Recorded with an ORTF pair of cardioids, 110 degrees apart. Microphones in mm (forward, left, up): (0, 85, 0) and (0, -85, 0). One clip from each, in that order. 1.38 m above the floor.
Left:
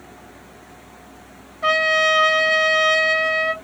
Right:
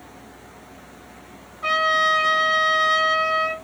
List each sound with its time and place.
1.6 s a trumpet: 30° left, 2.5 m